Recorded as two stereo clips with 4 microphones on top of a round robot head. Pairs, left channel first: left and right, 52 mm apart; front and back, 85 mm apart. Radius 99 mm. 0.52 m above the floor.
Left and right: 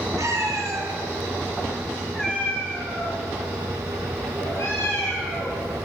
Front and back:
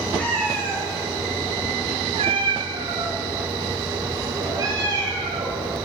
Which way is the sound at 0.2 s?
75° right.